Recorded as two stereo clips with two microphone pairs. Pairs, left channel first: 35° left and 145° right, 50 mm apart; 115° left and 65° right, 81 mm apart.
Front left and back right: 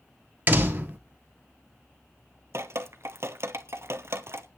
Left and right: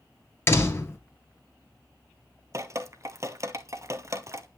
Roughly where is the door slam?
Behind.